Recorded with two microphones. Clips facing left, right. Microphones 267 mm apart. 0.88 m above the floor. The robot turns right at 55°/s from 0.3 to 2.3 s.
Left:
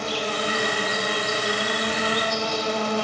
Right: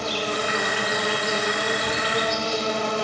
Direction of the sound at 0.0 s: 135° right.